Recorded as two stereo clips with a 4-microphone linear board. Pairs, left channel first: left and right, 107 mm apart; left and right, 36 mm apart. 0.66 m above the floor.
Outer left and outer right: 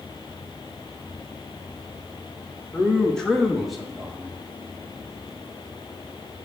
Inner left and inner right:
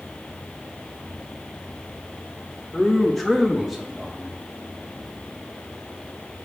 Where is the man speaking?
10° left (ahead or behind), 1.1 m; by 4.5 s 5° right (ahead or behind), 2.5 m.